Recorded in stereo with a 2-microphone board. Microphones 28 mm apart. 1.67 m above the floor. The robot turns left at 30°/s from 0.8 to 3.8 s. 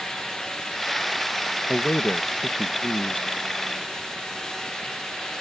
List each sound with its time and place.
1.7 s a man speaking: 135° left; by 3.3 s 85° left